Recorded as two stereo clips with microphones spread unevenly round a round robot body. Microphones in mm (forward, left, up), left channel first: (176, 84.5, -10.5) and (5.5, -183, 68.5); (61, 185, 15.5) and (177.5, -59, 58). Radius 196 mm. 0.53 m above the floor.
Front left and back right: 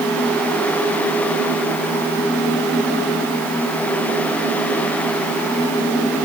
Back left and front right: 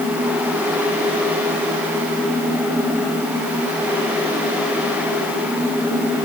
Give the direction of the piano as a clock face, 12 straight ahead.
I don't hear a piano.